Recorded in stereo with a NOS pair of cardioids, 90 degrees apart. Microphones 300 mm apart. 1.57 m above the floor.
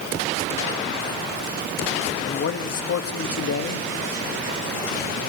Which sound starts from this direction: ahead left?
A man speaking, at 2.2 s.